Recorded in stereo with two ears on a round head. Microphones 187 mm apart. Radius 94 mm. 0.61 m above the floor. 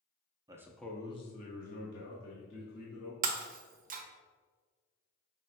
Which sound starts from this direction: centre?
A man speaking, at 0.5 s.